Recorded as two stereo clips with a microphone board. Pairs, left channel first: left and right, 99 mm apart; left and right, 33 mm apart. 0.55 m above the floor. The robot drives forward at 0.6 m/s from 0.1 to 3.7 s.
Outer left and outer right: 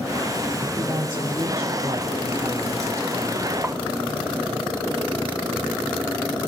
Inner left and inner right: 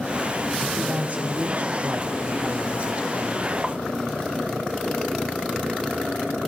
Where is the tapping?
20° right (ahead or behind), 0.7 m.